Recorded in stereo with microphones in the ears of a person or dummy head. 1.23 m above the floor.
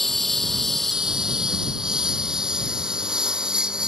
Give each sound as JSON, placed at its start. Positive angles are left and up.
{"t": 0.0, "sound": "a lawn mower", "side_deg": 0}